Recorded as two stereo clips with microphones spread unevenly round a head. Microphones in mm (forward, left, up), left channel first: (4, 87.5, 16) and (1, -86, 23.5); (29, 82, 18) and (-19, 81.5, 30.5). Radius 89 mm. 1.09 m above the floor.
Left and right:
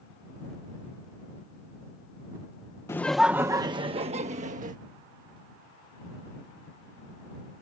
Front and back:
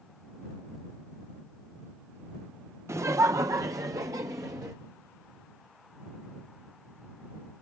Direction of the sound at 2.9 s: 160° left.